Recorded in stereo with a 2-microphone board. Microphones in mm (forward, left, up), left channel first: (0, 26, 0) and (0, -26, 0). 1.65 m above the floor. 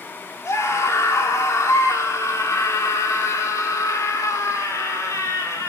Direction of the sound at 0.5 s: 70° left (ahead or behind).